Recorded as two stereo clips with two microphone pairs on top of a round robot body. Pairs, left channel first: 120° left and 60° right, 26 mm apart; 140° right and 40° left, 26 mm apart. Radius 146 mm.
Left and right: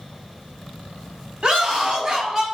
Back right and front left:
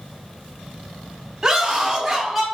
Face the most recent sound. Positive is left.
turn(degrees=-80)